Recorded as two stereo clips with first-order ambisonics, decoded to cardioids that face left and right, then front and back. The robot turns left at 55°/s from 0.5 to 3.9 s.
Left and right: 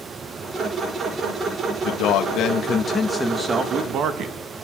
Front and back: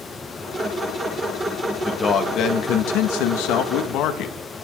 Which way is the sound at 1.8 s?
75° left.